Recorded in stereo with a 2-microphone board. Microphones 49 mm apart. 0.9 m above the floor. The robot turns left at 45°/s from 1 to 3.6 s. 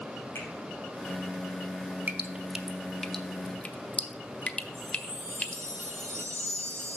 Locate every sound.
0.3 s a finger snap: 60° left (ahead or behind), 3.5 m
2.1 s dripping: 30° right (ahead or behind), 0.6 m; by 5.6 s 25° left (ahead or behind), 0.6 m
4.7 s a chime: 70° right (ahead or behind), 2.5 m